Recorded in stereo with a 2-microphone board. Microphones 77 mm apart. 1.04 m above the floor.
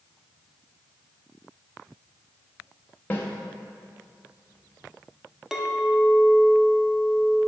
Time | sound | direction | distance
3.1 | a snare drum | 25° left (ahead or behind) | 0.8 m
5.5 | a clink | 5° right (ahead or behind) | 0.7 m